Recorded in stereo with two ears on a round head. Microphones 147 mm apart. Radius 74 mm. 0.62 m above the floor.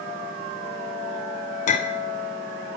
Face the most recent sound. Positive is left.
turn(degrees=45)  # may be behind; listen again after turning